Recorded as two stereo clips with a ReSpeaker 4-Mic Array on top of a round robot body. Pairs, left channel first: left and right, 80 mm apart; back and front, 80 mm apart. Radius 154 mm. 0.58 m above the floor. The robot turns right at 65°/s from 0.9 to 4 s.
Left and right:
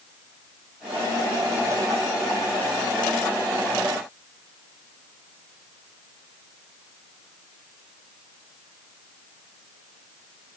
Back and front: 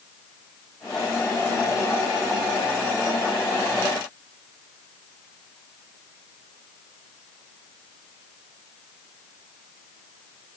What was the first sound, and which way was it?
Only background noise.